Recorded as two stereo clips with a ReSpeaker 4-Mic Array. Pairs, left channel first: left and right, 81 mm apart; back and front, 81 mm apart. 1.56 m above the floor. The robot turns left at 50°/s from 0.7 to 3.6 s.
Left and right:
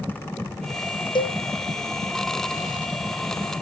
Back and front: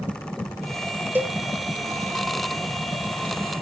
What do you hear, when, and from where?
1.1 s a cowbell: 70° left, 0.8 m; by 1.4 s 55° left, 0.8 m